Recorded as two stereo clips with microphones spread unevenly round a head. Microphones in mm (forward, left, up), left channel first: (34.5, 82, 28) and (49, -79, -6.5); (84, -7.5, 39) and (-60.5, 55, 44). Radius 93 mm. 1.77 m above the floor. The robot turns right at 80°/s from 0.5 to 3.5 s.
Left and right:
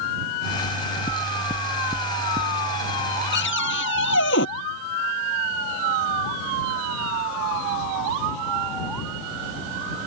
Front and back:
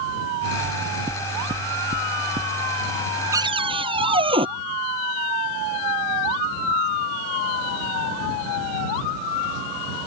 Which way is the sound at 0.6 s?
65° left.